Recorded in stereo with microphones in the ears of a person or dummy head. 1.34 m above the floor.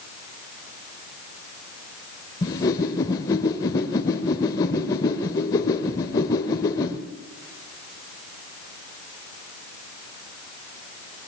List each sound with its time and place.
2.4 s a whoosh: 15° left (ahead or behind), 1.1 m